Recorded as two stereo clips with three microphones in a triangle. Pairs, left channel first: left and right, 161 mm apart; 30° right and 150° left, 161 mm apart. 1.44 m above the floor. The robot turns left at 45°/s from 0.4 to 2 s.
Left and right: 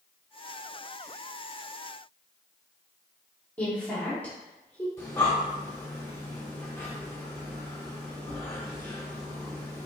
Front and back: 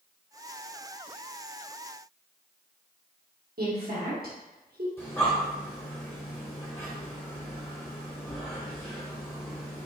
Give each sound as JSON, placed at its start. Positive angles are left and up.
{"t": 3.6, "sound": "a woman speaking", "azimuth_deg": 170, "distance_m": 1.1}
{"t": 5.0, "sound": "breathing", "azimuth_deg": 30, "distance_m": 1.2}